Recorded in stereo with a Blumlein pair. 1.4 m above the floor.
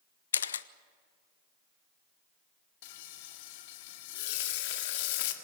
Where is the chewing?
I don't hear chewing.